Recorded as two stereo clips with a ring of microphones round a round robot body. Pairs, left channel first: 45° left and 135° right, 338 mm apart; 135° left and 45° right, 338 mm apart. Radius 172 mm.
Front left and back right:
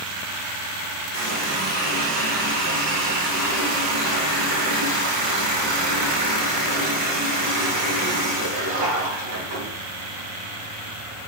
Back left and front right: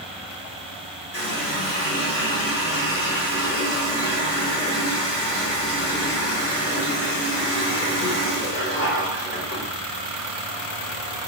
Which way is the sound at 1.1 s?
160° right.